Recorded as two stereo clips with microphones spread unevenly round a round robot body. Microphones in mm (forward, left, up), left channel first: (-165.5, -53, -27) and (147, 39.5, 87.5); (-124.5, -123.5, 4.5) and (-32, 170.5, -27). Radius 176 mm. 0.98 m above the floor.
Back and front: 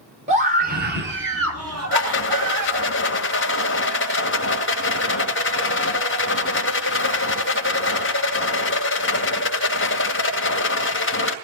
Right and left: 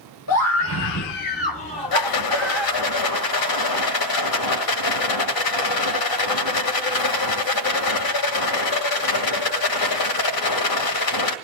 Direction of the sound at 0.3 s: 55° right.